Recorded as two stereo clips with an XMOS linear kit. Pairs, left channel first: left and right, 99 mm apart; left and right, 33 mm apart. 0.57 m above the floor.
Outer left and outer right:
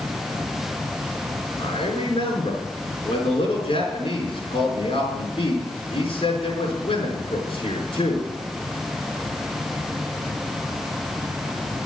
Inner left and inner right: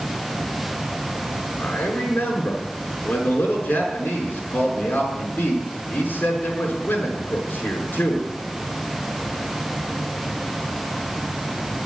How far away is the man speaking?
About 5.5 m.